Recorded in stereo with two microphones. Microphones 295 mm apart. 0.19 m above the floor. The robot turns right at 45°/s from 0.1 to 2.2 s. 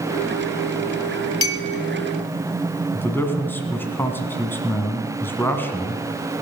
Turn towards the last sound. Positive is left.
turn(degrees=5)  # may be behind; listen again after turning